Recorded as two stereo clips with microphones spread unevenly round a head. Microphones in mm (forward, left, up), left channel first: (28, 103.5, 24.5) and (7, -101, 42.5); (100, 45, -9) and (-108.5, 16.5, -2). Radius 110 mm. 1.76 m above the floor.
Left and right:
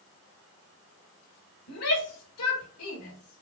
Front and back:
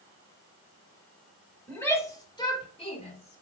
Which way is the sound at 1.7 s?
90° left.